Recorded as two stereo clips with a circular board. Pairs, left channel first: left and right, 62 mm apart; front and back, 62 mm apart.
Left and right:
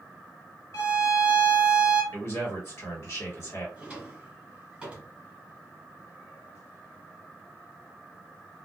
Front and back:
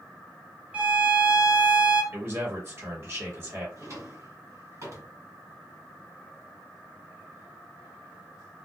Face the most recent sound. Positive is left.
turn(degrees=-160)